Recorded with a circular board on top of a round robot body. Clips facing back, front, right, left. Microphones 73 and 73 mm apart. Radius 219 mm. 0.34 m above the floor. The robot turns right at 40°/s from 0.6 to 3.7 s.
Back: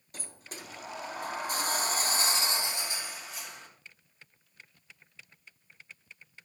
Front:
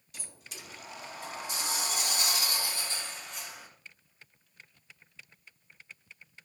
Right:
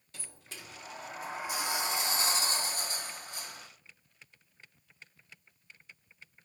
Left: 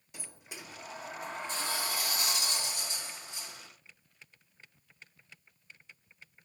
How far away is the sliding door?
About 1.0 m.